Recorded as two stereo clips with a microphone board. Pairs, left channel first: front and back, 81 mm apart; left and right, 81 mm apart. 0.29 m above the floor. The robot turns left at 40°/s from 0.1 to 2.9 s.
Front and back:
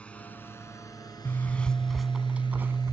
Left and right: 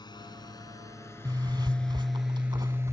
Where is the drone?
75° left; by 2.9 s 35° right.